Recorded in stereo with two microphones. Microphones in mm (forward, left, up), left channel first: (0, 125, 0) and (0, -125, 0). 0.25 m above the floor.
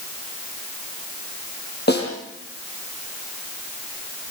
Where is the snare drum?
45° left (ahead or behind), 6.5 m.